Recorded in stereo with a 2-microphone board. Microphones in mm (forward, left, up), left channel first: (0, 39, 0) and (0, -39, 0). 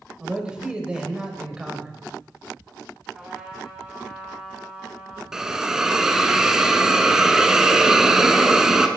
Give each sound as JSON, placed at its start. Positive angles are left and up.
{"t": 0.2, "sound": "a man speaking", "side_deg": -10, "distance_m": 1.0}
{"t": 3.1, "sound": "a trumpet", "side_deg": -15, "distance_m": 1.7}
{"t": 5.3, "sound": "a hiss", "side_deg": -5, "distance_m": 0.5}